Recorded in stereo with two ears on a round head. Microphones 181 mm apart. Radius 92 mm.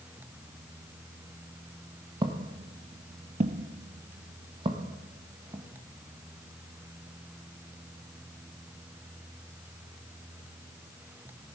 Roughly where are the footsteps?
Right.